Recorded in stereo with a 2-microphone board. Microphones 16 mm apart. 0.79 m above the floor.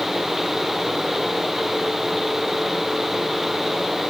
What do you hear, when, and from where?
Only background noise.